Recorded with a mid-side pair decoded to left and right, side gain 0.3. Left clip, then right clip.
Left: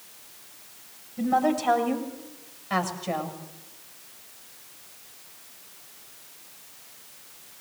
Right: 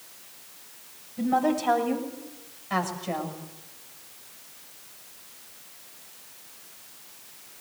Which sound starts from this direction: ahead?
A woman speaking, at 1.2 s.